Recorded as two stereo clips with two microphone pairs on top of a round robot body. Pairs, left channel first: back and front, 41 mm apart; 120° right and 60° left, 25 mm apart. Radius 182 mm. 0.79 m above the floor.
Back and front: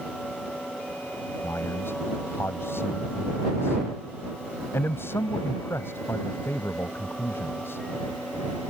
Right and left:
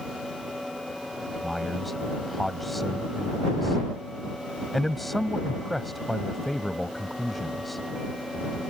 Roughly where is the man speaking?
Behind left.